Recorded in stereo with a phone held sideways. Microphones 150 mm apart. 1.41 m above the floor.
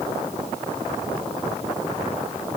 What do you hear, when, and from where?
Only background noise.